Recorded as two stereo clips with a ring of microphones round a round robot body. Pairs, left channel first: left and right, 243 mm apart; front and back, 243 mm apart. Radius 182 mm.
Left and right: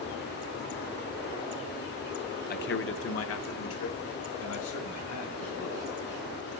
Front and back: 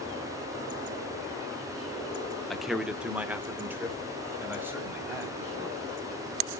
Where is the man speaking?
90° left, 0.8 m; by 5.8 s 100° left, 3.5 m.